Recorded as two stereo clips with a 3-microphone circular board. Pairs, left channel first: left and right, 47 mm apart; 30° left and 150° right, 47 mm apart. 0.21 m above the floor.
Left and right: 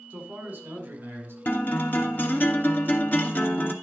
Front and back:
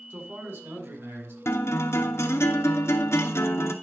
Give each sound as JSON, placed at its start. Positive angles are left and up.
{"t": 0.1, "sound": "a man speaking", "azimuth_deg": -145, "distance_m": 2.0}
{"t": 1.4, "sound": "a guitar", "azimuth_deg": 40, "distance_m": 1.1}